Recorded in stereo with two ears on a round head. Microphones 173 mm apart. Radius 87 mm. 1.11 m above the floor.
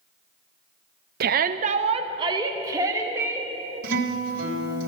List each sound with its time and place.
1.2 s a shout: 50° right (ahead or behind), 0.6 m; by 3.5 s 15° right (ahead or behind), 2.5 m
3.8 s a guitar: 60° right (ahead or behind), 3 m